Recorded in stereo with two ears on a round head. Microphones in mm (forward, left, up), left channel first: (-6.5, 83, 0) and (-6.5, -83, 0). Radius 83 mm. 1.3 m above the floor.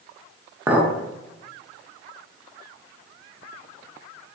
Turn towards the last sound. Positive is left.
turn(degrees=-10)  # may be behind; listen again after turning